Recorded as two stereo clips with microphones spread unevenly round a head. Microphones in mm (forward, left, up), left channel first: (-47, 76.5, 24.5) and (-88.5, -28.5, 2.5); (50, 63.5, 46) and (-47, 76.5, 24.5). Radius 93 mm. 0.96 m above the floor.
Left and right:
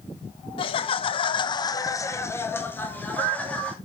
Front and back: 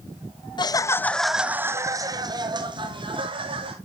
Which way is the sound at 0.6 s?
30° left.